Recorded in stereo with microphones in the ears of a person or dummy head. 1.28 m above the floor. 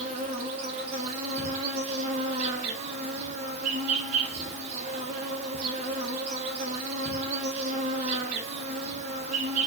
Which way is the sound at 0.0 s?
35° right (ahead or behind).